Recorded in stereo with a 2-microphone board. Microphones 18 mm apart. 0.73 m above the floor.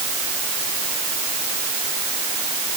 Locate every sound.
Only background noise.